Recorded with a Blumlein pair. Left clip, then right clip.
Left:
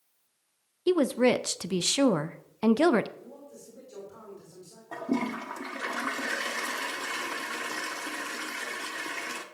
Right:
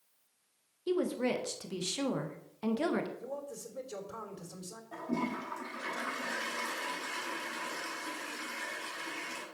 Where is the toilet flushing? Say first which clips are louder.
Left 5 dB; 30° left, 1.4 m.